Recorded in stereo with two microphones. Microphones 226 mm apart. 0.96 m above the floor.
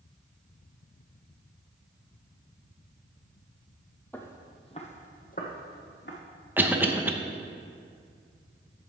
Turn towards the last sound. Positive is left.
turn(degrees=-10)  # may be behind; listen again after turning